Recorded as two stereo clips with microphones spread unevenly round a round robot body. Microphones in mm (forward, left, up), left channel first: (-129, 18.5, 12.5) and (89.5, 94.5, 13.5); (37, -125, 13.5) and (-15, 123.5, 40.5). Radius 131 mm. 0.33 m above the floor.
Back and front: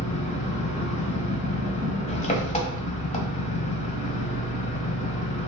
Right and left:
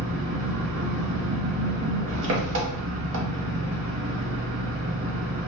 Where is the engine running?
140° left, 1.2 m.